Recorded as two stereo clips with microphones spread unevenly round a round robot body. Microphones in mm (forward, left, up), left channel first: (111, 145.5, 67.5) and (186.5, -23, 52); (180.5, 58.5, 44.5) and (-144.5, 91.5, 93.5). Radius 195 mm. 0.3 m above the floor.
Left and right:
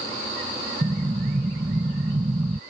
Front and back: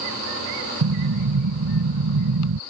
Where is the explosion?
140° right.